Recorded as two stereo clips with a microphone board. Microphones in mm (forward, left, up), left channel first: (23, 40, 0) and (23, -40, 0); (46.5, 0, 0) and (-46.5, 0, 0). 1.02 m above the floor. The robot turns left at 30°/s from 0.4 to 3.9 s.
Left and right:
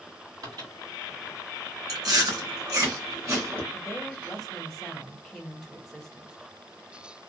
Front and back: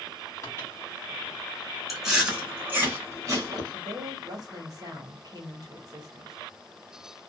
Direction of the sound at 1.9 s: 90° right.